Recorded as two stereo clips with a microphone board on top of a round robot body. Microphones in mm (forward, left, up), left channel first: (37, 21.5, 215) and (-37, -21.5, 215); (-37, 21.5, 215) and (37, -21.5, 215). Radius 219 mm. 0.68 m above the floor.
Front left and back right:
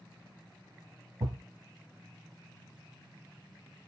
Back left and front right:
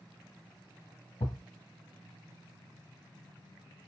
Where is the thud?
175° left, 1.3 m.